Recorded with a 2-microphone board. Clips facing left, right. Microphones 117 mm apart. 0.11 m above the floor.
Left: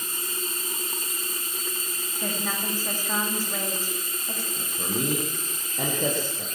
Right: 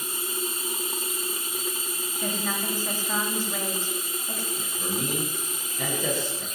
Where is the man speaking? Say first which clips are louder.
Left 3 dB; 60° left (ahead or behind), 8.5 m.